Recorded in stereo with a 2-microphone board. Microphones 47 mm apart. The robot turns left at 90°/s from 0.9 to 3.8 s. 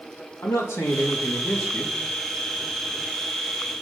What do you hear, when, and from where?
0.4 s a man speaking: 80° left, 2.5 m; by 2.0 s 20° right, 2.5 m